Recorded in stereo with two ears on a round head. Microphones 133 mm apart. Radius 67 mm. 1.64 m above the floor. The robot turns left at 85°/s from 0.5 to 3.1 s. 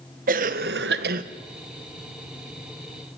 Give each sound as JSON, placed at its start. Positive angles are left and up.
{"t": 0.3, "sound": "a cough", "azimuth_deg": -55, "distance_m": 1.4}